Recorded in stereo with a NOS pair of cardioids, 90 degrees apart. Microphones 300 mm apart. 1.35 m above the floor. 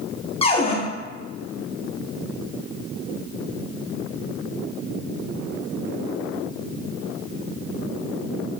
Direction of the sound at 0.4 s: 20° left.